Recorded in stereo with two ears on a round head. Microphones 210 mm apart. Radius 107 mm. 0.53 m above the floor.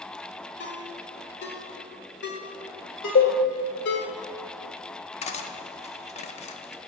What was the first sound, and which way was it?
A ringtone, 45° left (ahead or behind).